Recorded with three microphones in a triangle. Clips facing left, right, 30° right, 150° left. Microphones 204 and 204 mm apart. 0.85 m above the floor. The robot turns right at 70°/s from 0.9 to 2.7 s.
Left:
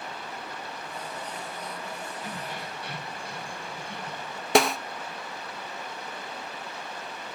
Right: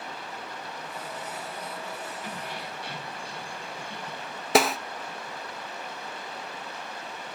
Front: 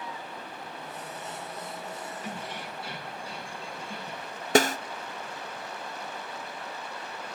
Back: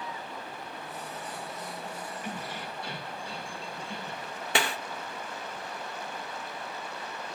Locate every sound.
2.2 s keys jangling: 25° left, 6.5 m; by 4.5 s 55° left, 6.5 m
4.5 s a snare drum: straight ahead, 0.5 m